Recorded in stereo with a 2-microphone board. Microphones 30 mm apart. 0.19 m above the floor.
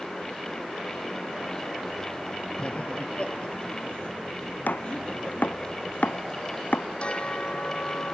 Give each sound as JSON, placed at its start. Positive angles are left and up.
{"t": 2.6, "sound": "laughter", "side_deg": 40}
{"t": 4.7, "sound": "chopping", "side_deg": 75}
{"t": 7.0, "sound": "a bell", "side_deg": 35}